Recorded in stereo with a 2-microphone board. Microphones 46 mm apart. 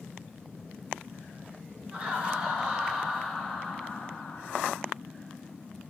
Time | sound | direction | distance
1.9 | laughter | 25° right (ahead or behind) | 2 m